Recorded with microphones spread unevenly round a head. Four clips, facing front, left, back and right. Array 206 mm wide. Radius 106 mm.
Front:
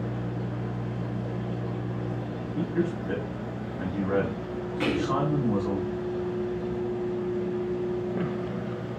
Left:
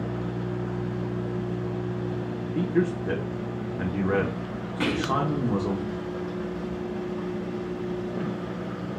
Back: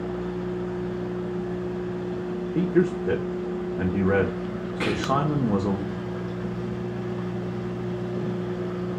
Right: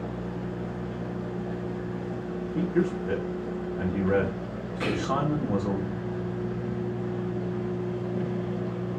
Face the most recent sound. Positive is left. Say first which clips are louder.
# left 2 dB, back 2 dB
turn(degrees=110)